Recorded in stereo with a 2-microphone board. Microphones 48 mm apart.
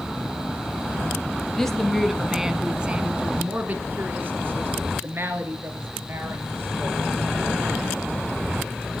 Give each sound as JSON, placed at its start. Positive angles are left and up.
{"t": 1.5, "sound": "a woman speaking", "side_deg": 10, "distance_m": 1.3}